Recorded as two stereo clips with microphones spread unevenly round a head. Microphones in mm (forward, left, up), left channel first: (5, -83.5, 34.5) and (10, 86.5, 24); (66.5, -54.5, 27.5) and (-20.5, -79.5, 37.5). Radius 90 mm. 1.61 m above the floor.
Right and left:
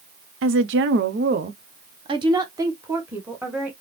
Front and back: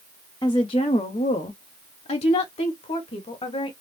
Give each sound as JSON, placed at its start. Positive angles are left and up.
{"t": 0.4, "sound": "a woman speaking", "azimuth_deg": 80, "distance_m": 0.8}